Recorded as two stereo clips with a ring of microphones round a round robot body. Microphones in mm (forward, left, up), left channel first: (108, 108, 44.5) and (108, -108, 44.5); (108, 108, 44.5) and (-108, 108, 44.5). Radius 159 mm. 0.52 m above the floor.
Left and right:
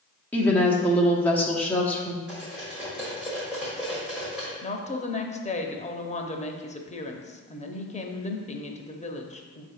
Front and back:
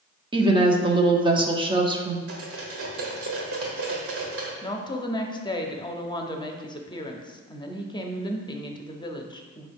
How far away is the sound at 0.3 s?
About 0.8 m.